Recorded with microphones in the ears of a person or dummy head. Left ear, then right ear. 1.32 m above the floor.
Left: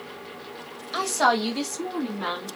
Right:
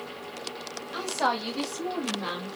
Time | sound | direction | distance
0.9 | a woman speaking | 80° left | 1.4 m